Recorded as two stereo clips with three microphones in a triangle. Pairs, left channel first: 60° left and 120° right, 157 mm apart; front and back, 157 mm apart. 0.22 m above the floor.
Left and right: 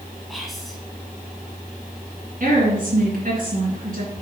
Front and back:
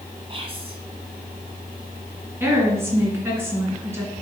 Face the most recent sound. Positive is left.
turn(degrees=-110)